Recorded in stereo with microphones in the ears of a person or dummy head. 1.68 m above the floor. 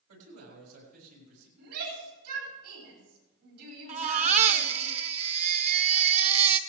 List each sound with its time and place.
0.1 s a man speaking: 80° right, 7 m
1.6 s a shout: 80° right, 9.5 m
3.9 s a baby crying: 40° right (ahead or behind), 0.8 m